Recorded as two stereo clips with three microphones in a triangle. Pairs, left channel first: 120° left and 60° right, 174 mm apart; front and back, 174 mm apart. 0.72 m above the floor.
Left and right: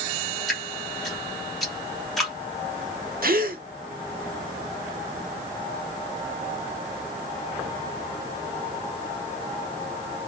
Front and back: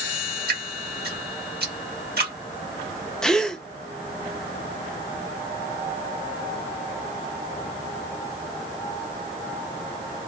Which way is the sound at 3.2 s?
85° right.